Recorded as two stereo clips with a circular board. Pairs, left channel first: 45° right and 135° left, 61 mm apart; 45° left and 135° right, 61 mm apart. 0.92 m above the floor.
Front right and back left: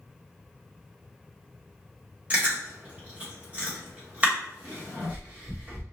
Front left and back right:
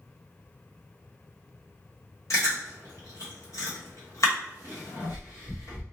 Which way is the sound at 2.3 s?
70° left.